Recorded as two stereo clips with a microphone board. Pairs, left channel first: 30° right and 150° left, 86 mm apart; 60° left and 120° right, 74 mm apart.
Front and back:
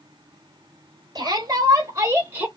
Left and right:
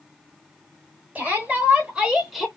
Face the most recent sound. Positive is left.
turn(degrees=145)